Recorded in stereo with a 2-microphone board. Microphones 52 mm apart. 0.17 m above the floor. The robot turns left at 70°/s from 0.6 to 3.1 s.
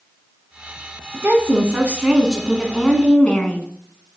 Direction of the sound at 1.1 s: 80° right.